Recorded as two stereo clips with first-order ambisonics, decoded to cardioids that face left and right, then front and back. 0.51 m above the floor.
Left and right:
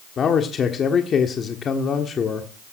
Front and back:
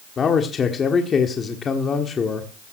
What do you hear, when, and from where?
0.2 s a man speaking: 50° left, 1.4 m